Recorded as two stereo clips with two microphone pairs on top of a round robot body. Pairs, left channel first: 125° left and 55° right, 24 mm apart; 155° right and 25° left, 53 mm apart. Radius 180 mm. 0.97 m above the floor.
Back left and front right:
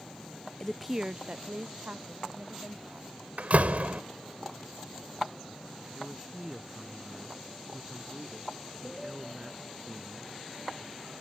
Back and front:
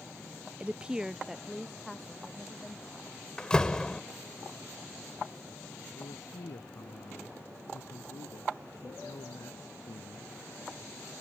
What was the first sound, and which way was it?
A woman speaking, 55° left.